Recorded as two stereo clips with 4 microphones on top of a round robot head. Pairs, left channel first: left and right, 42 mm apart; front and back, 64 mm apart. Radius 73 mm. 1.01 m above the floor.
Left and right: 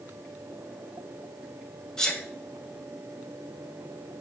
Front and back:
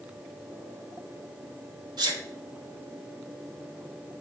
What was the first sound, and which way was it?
A sneeze, 165° left.